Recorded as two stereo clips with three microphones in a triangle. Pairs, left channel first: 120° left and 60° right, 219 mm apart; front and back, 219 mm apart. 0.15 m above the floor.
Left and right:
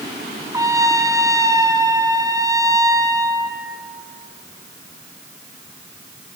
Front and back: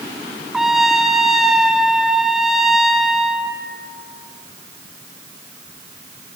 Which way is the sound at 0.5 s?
95° right.